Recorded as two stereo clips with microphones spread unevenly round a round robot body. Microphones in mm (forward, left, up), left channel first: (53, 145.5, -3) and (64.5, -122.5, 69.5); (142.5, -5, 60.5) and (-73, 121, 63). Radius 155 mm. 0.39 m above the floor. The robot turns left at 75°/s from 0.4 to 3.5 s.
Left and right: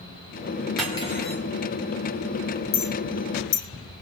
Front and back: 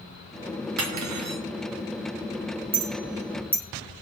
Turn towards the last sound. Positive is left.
turn(degrees=55)